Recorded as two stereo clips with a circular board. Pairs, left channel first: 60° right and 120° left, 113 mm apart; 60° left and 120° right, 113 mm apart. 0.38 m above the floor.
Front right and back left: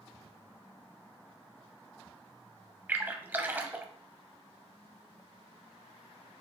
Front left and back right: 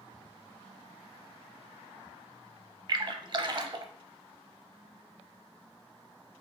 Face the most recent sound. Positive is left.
turn(degrees=-165)